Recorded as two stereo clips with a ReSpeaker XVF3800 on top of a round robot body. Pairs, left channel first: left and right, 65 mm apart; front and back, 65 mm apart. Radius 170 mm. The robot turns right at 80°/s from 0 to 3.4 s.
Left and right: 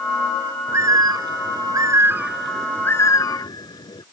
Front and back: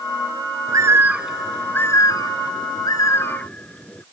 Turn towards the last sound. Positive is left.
turn(degrees=70)